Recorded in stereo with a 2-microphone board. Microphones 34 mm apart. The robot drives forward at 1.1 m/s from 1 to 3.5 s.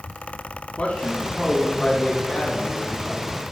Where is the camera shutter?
I don't hear a camera shutter.